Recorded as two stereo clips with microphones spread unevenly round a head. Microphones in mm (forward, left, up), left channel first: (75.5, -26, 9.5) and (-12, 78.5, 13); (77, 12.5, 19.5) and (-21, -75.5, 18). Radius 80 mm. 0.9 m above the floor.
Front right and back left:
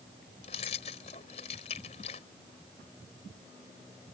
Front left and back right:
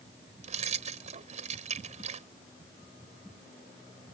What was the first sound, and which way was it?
Keys jangling, 105° right.